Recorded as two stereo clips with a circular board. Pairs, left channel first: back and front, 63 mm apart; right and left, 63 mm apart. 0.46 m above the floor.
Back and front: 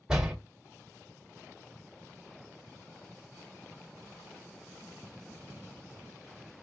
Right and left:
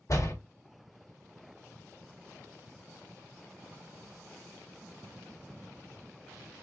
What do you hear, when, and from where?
0.1 s a door slam: 75° right, 1.3 m